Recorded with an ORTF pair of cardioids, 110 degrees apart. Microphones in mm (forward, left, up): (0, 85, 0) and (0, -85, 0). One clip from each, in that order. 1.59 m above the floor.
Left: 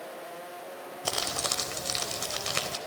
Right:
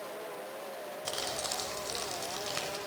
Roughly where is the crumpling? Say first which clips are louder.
Left 6 dB; ahead left.